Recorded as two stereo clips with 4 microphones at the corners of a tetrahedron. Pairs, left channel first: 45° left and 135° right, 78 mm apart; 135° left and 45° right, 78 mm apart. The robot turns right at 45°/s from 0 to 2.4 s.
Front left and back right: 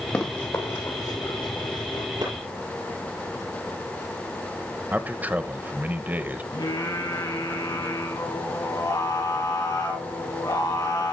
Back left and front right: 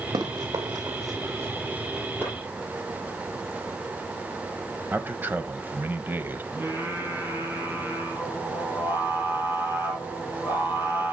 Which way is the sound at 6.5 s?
15° left.